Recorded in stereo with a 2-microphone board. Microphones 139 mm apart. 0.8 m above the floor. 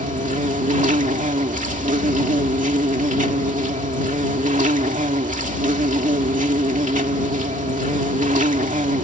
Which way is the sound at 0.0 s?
60° right (ahead or behind).